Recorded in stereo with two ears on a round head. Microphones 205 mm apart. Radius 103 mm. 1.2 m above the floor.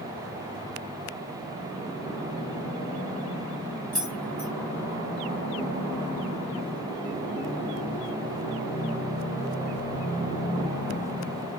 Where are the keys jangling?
60° left (ahead or behind), 6.5 m.